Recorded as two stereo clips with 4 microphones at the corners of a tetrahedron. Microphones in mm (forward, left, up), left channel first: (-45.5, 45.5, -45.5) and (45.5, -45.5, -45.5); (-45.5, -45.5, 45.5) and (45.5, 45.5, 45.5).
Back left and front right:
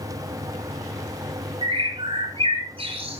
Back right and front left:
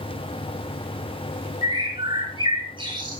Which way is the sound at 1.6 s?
Straight ahead.